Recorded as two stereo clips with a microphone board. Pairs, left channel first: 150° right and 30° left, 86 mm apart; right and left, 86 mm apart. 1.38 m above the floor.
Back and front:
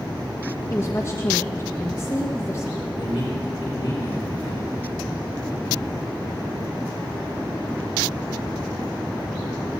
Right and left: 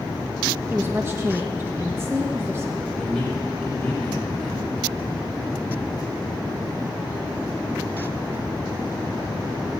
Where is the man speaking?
165° right, 8 m.